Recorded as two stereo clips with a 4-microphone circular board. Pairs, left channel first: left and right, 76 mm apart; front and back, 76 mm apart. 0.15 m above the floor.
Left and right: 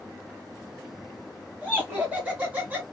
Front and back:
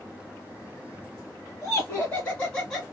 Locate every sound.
1.6 s laughter: 25° right, 1.9 m; by 2.8 s 80° right, 1.7 m